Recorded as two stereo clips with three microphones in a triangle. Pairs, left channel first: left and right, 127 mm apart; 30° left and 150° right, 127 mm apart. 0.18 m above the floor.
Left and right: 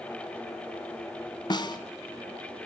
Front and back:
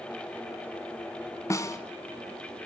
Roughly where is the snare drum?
Left.